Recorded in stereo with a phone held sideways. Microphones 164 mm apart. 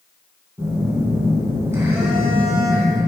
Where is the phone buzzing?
15° right (ahead or behind), 3 m.